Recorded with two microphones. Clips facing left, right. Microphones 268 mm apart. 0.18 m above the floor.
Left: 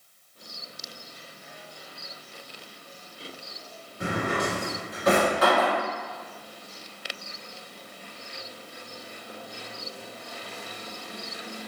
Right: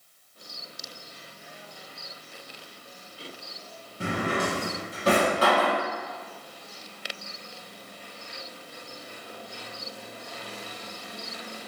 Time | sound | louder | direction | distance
4.0 | a drawer | even | 35° right (ahead or behind) | 1.2 m